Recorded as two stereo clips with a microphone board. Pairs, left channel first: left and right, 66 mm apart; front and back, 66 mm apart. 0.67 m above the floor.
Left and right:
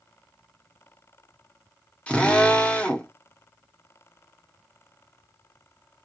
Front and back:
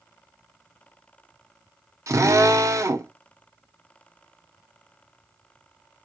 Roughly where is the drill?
Behind.